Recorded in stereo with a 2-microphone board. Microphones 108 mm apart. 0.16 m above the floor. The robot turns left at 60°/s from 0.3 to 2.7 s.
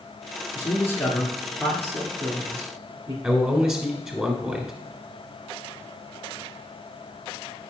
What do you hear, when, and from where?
0.6 s a man speaking: 40° left (ahead or behind), 2 m; by 3.1 s 55° right (ahead or behind), 2 m
3.2 s a man speaking: 10° right (ahead or behind), 1.5 m